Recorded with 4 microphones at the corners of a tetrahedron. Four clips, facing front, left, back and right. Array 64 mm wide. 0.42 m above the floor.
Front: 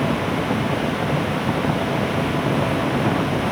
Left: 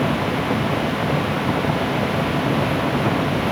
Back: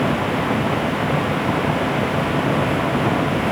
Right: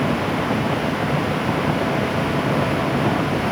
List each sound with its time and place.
Only background noise.